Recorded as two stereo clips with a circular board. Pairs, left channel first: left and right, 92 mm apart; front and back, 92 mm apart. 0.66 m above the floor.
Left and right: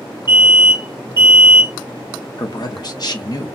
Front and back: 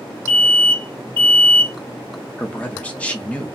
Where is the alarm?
70° left, 2 m.